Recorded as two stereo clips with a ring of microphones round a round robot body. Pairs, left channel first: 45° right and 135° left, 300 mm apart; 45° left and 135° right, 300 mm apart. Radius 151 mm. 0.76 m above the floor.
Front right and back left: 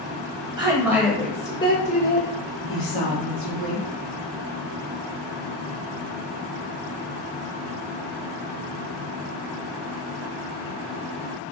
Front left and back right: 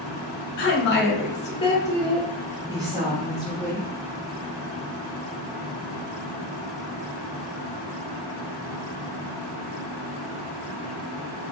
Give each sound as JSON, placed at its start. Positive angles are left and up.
{"t": 0.6, "sound": "a woman speaking", "azimuth_deg": 65, "distance_m": 1.0}